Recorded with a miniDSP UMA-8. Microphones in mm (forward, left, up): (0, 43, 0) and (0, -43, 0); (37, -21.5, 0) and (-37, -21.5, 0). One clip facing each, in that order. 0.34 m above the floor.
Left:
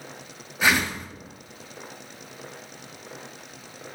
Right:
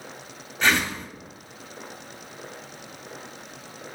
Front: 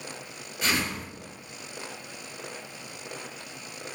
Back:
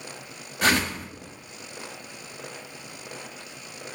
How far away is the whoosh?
About 0.6 m.